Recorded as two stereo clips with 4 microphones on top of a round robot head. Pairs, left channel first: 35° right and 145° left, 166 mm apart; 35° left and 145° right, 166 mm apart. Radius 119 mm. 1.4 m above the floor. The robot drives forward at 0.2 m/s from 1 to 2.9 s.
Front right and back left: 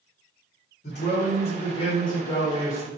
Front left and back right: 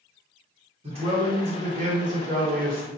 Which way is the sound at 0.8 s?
85° right.